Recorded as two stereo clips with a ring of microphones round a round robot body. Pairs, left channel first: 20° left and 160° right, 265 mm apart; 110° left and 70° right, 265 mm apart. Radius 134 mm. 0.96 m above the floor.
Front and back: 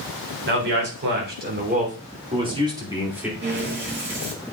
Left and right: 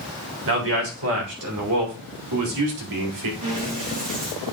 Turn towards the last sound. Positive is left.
turn(degrees=-105)